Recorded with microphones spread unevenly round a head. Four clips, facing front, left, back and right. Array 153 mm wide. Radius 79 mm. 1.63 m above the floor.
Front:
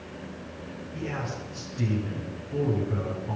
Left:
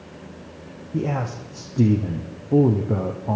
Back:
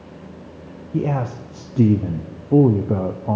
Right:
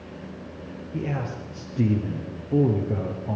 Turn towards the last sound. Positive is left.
turn(degrees=160)